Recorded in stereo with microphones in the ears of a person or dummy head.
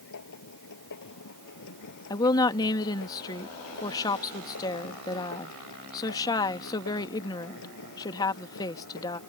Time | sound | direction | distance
0.0 | a machine running | 65° left (ahead or behind) | ?
2.1 | a woman speaking | 25° left (ahead or behind) | ?